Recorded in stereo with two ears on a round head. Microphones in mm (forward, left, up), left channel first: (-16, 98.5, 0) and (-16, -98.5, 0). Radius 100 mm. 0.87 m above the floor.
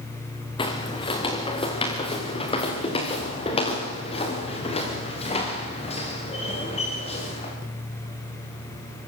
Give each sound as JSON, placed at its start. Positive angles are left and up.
{"t": 0.6, "sound": "footsteps", "side_deg": 25, "distance_m": 4.5}